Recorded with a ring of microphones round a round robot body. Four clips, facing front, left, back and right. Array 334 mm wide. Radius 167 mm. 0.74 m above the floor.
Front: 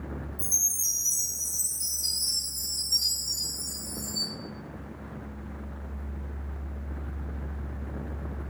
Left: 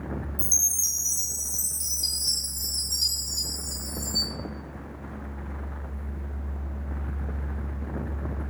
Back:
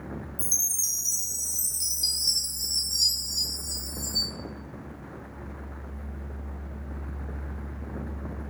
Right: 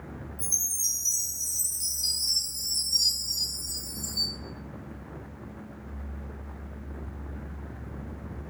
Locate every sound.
0.4 s a chime: 140° left, 1.4 m